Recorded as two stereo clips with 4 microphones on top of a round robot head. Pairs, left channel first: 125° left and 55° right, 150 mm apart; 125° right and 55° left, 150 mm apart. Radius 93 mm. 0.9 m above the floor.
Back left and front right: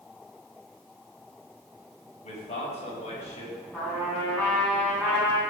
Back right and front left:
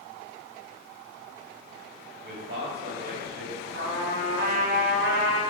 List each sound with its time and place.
2.2 s a man speaking: 80° left, 4.5 m; by 3.5 s 75° left, 5.5 m
3.7 s a trumpet: 50° left, 6.5 m